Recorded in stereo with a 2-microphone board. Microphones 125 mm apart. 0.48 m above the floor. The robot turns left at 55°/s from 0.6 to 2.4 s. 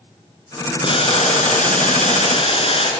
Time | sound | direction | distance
0.8 | boiling | 140° left | 4 m